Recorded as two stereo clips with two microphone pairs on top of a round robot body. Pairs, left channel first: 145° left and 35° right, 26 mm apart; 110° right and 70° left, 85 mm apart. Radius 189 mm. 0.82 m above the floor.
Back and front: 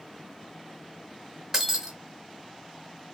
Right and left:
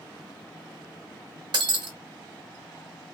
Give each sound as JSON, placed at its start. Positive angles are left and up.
{"t": 1.5, "sound": "breaking glass", "azimuth_deg": 35, "distance_m": 1.2}